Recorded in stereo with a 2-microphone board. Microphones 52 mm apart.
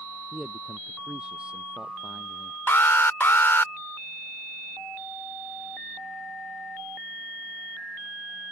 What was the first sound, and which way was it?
A man speaking, 20° right (ahead or behind).